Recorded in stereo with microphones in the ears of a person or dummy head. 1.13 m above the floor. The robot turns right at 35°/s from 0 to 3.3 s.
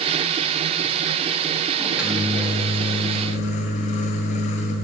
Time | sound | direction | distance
1.8 | a microwave | 20° right | 1.1 m